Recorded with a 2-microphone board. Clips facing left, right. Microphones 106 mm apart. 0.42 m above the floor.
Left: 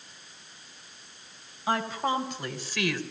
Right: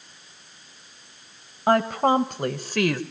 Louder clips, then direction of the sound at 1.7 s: Right 9 dB; 55° right (ahead or behind).